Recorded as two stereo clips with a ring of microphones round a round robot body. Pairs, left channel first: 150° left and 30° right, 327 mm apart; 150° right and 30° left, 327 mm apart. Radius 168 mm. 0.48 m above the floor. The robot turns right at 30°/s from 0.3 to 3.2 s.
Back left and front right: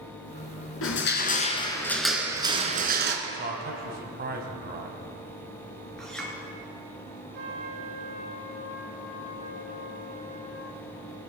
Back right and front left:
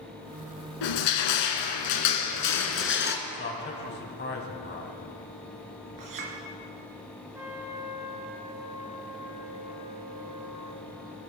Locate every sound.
0.8 s crushing: 160° right, 1.8 m; by 3.2 s 85° right, 1.8 m
3.3 s a man speaking: 90° right, 3.5 m
6.0 s a clink: 60° left, 4 m
7.3 s a trumpet: 55° right, 3.5 m